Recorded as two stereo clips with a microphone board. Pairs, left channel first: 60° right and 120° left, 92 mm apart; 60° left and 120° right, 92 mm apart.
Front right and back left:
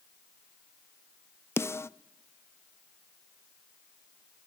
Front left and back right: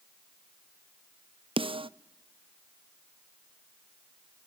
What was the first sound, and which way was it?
A snare drum, 120° right.